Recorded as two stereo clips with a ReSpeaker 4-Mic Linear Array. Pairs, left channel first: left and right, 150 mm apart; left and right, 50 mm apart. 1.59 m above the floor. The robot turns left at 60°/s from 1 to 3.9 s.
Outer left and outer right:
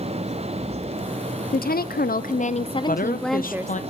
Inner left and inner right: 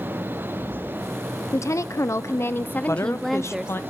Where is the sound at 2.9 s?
110° left, 0.9 m; by 3.8 s 55° left, 0.9 m.